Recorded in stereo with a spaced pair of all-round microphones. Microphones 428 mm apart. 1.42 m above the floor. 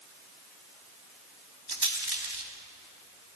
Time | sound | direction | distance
1.7 | a rattle | 65° right (ahead or behind) | 2 m